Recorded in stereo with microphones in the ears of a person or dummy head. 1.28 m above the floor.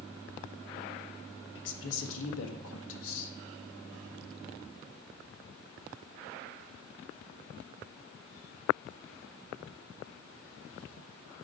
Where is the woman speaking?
85° left, 1.4 m.